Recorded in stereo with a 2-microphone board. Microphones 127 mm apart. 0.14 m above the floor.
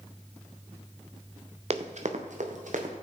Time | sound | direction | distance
1.7 | running footsteps | 55° right (ahead or behind) | 1.2 m